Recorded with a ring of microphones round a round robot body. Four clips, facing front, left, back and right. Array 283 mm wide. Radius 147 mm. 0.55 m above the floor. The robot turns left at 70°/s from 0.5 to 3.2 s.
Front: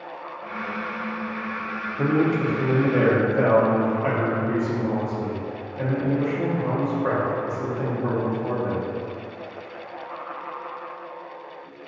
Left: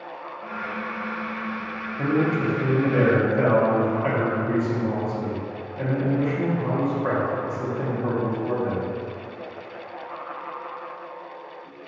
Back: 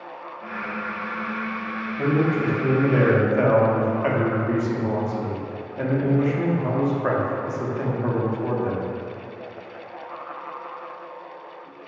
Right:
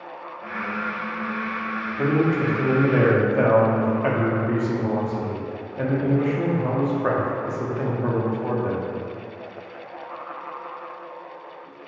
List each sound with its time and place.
2.0 s a man speaking: 40° right, 0.7 m; by 8.9 s 130° right, 0.7 m